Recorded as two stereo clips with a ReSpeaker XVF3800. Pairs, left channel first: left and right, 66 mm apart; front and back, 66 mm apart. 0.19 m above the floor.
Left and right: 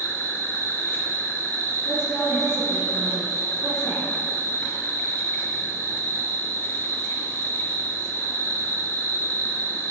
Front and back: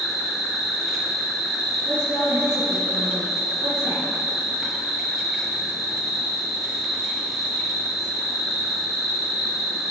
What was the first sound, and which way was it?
An insect, 100° left.